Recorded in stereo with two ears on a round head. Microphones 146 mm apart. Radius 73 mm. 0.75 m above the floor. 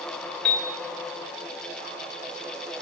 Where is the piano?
5° left (ahead or behind), 3 m.